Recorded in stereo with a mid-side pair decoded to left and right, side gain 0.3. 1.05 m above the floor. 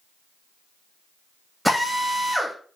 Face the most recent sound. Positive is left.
turn(degrees=5)